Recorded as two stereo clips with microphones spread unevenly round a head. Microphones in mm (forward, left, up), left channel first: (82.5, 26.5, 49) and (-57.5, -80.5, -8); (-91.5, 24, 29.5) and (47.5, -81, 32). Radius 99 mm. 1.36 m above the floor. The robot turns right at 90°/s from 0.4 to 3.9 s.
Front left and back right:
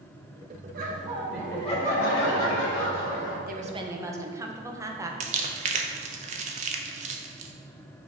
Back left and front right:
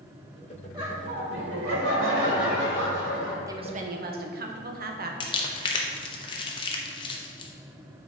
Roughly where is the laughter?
Right.